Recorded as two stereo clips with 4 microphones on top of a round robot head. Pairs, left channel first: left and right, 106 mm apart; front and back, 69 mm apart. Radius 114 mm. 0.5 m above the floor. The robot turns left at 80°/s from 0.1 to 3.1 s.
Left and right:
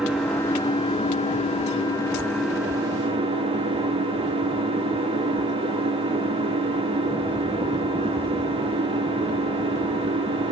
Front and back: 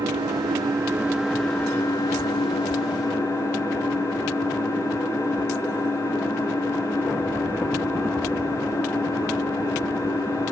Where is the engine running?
175° right, 5 m; by 10.5 s 55° right, 5 m.